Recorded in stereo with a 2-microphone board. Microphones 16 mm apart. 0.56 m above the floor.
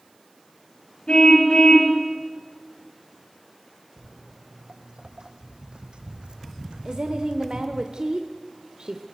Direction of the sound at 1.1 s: 65° left (ahead or behind).